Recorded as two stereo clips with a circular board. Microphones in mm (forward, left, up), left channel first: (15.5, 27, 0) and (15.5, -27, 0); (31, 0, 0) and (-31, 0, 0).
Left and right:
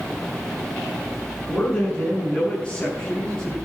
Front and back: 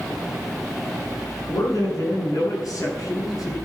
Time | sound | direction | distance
1.4 | a man speaking | 25° left | 6 m